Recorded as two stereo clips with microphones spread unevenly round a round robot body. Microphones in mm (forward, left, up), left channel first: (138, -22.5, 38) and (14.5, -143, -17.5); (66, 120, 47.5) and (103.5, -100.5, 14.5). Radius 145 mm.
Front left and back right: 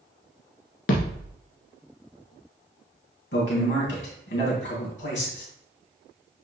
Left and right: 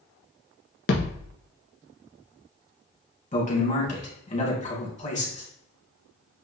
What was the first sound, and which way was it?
A thud, 55° left.